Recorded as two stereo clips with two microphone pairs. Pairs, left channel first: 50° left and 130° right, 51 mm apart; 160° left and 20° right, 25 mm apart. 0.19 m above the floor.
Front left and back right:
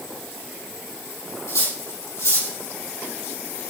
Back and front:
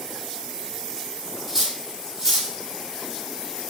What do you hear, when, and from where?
1.5 s cutlery clinking: 50° left, 4 m